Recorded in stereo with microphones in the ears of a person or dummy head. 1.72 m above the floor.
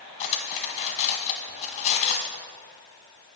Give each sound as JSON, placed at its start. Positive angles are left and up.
{"t": 0.2, "sound": "cutlery clinking", "side_deg": 30, "distance_m": 1.2}